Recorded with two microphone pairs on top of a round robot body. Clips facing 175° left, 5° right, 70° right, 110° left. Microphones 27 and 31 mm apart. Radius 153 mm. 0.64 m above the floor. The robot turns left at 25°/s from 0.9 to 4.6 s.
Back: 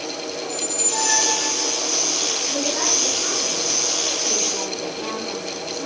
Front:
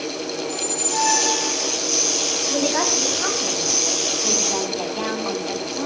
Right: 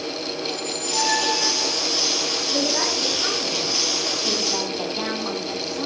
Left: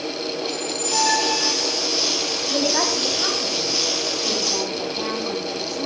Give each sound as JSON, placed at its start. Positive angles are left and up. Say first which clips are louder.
{"t": 0.4, "sound": "a squeak", "louder": "front 1 dB, left 1 dB", "azimuth_deg": 80, "distance_m": 5.5}
{"t": 2.5, "sound": "a woman speaking", "louder": "front 4 dB, left 3 dB", "azimuth_deg": 50, "distance_m": 7.0}